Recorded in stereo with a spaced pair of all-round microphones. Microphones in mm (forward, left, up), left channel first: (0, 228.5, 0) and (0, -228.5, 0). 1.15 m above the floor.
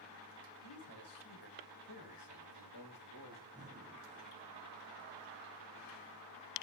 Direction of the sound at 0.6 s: 60° left (ahead or behind).